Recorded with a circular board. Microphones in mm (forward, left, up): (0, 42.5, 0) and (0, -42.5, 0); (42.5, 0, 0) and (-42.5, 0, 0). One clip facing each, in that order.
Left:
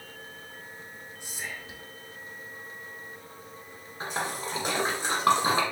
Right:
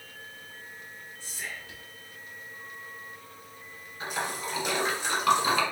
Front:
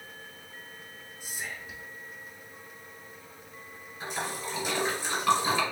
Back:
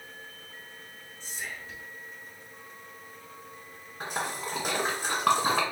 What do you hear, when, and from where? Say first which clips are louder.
1.2 s whispering: left 1 dB, even; 55° left, 0.8 m
4.0 s a splash: left 1 dB, back 2 dB; 145° left, 1.4 m